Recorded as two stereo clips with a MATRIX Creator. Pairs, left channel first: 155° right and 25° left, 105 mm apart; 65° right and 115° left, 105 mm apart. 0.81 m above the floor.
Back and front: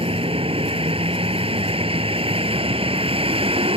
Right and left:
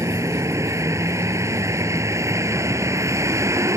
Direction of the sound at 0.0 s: 50° left.